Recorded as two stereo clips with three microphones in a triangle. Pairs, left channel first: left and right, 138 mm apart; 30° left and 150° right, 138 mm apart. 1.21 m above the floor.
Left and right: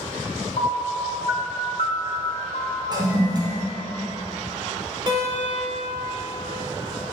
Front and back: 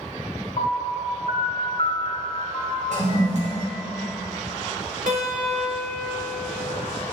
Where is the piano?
65° left, 1.5 m.